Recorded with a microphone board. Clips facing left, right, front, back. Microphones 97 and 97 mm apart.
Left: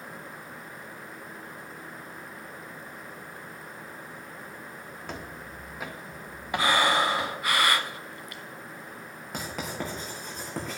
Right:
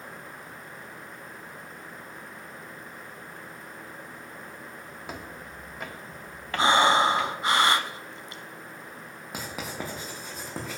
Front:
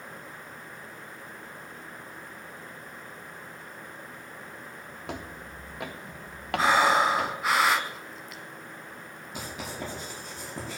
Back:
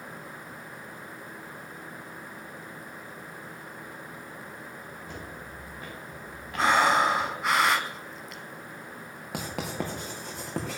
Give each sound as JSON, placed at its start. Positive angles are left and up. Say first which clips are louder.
{"t": 5.1, "sound": "footsteps", "louder": "even, front 6 dB", "azimuth_deg": -5, "distance_m": 2.0}
{"t": 6.6, "sound": "breathing", "louder": "right 4 dB, even", "azimuth_deg": -90, "distance_m": 0.9}
{"t": 9.3, "sound": "writing", "louder": "left 1 dB, back 4 dB", "azimuth_deg": -175, "distance_m": 4.5}